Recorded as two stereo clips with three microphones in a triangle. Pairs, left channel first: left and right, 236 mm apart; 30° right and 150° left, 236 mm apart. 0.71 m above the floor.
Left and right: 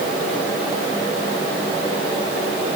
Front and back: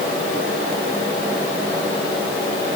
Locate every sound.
Only background noise.